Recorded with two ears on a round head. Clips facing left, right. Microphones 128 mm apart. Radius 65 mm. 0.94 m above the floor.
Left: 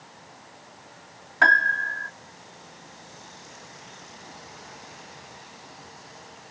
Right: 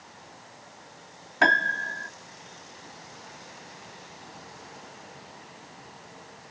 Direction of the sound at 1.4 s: 30° right (ahead or behind).